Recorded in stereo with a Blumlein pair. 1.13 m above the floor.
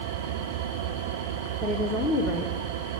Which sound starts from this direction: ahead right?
An engine running, at 0.0 s.